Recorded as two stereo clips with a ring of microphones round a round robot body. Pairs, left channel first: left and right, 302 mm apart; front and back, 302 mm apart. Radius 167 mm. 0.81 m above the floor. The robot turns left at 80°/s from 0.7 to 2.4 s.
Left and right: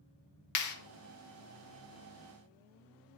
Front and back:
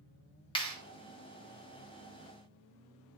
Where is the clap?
75° left, 1.0 m; by 0.8 s 70° left, 1.0 m.